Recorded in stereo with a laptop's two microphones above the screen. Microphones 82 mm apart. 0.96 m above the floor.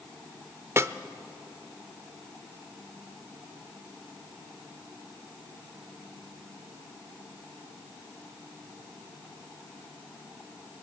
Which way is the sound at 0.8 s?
35° right (ahead or behind).